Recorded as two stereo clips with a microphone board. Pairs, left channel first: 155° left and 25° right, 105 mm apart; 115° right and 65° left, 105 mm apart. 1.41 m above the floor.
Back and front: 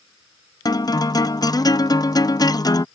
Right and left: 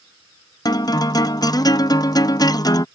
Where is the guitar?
155° right.